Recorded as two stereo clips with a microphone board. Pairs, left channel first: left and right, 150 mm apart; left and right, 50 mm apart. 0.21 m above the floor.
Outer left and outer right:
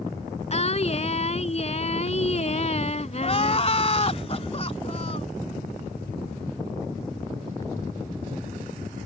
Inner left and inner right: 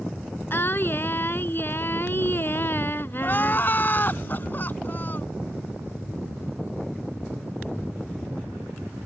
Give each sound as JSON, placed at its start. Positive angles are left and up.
{"t": 0.5, "sound": "singing", "side_deg": 45}
{"t": 3.2, "sound": "crying", "side_deg": 45}